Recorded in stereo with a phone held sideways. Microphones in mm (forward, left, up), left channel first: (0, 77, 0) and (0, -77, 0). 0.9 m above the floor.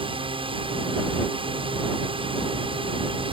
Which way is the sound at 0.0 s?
35° right (ahead or behind).